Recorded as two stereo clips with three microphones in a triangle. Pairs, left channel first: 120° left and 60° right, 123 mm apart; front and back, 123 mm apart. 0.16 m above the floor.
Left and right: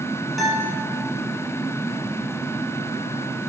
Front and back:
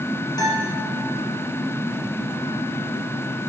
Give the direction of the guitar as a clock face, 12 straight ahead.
11 o'clock.